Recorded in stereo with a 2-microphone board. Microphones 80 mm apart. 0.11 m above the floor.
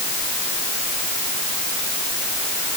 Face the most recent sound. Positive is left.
No sound to turn to.